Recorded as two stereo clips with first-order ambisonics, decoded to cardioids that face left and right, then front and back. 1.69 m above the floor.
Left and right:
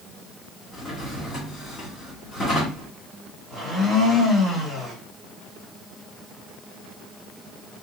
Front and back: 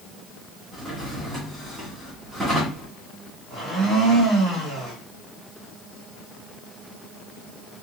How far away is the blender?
About 2 m.